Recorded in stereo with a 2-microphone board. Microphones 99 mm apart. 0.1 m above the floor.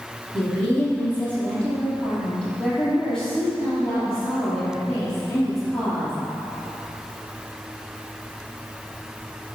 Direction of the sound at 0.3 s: 20° left (ahead or behind).